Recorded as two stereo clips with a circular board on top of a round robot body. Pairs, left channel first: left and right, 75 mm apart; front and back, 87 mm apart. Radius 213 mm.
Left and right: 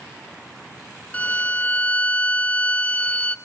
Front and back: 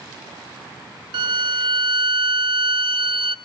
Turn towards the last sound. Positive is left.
turn(degrees=165)